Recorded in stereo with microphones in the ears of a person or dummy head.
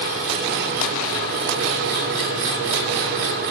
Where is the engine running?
50° right (ahead or behind), 1.1 m.